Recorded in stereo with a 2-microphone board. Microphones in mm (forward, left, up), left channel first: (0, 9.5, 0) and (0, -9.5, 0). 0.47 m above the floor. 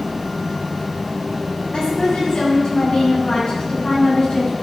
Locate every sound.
1.7 s a woman speaking: 65° left (ahead or behind), 4 m